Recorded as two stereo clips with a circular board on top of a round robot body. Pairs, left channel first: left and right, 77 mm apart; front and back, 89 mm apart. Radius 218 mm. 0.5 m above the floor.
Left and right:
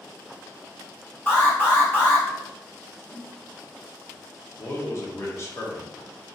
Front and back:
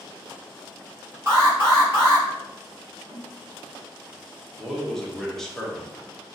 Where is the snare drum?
165° left, 1.7 m.